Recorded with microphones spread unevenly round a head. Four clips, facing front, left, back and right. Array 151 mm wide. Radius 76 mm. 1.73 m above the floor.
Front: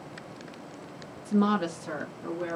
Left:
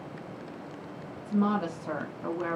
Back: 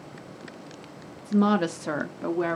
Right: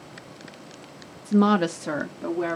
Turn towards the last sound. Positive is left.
turn(degrees=-145)